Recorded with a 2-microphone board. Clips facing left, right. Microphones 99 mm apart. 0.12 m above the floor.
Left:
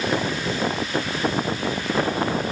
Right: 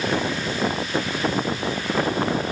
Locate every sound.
Only background noise.